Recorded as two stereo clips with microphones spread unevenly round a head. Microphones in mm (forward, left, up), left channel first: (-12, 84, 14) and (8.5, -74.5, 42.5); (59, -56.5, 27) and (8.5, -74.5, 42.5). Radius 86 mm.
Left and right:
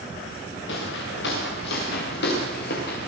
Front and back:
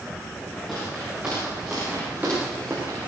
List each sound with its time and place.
0.7 s footsteps: 115° left, 8.5 m; by 3.1 s 130° left, 8.5 m